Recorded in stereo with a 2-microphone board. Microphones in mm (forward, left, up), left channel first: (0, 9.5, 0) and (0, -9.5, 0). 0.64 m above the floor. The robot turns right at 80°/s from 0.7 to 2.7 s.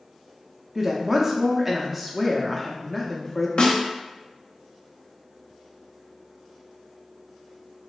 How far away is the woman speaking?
About 0.5 m.